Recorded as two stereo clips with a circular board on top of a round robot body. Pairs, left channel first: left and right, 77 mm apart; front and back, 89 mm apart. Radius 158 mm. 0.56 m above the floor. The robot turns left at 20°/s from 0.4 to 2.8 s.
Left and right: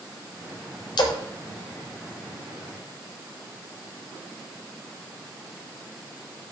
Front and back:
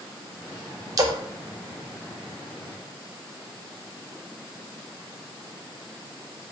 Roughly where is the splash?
Behind left.